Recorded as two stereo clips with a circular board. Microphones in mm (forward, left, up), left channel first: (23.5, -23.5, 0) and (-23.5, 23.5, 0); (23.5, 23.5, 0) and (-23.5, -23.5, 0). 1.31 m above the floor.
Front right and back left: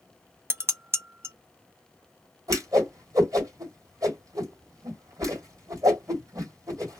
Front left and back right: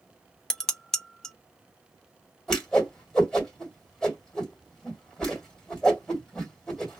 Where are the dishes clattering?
125° left, 0.6 m.